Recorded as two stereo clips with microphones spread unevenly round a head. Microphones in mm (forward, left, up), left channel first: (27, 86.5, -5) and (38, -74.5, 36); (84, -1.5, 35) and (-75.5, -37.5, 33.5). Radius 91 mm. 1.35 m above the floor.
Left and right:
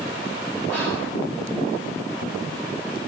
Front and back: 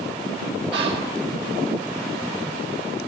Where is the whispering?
175° left, 1.6 m.